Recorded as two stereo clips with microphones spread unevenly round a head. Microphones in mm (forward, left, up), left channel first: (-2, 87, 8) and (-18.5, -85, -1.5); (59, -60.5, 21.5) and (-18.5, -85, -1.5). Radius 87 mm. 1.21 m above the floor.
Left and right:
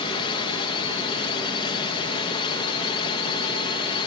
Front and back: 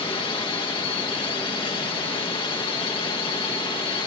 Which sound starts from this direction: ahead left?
A drone, at 0.0 s.